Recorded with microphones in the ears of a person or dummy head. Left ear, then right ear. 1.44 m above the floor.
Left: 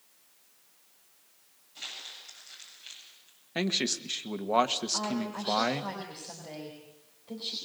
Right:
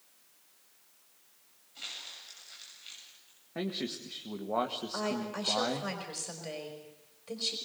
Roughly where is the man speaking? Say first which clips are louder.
Left 7 dB; left.